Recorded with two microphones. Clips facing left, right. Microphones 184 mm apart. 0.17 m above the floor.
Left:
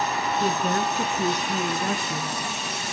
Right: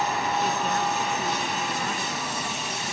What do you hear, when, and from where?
0.4 s a woman speaking: 40° left (ahead or behind), 2.0 m